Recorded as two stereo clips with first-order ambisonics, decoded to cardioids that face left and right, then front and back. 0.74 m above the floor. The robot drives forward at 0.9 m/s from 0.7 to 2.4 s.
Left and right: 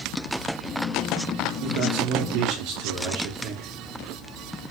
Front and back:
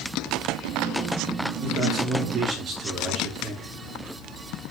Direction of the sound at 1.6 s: 110° right.